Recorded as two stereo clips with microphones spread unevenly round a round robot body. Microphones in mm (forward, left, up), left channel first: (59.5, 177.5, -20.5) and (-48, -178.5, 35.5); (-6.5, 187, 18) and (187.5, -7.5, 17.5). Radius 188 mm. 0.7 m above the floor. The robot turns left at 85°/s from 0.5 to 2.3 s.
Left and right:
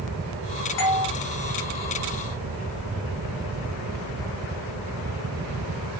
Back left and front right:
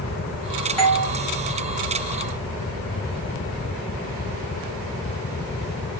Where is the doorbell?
50° left, 3 m; by 1.1 s 25° left, 3 m.